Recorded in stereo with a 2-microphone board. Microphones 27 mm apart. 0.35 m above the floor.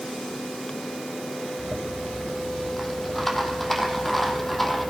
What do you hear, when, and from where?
1.6 s a rattle: 5° left (ahead or behind), 2.5 m